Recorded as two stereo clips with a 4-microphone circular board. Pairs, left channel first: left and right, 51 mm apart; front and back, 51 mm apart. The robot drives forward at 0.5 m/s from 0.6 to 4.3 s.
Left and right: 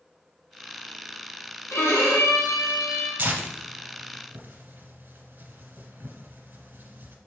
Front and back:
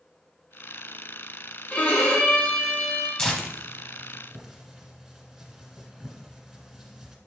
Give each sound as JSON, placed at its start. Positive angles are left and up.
{"t": 1.7, "sound": "a violin", "azimuth_deg": 60, "distance_m": 2.5}
{"t": 3.2, "sound": "tearing paper", "azimuth_deg": -75, "distance_m": 1.3}